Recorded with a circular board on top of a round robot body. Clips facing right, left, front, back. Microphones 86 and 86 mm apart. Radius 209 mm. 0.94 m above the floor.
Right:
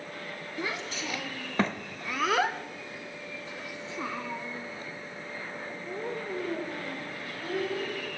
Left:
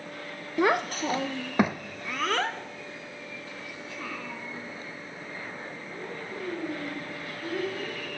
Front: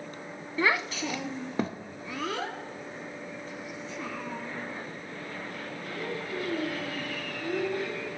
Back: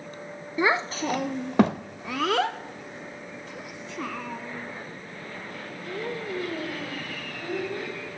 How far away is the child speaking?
About 0.8 m.